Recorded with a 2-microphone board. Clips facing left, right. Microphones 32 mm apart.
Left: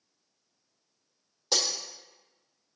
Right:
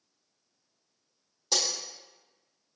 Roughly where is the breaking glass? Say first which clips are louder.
Left 1 dB; centre.